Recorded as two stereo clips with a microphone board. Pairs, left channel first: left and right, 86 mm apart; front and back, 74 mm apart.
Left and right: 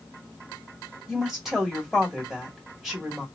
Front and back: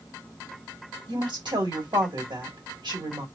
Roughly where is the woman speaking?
Behind.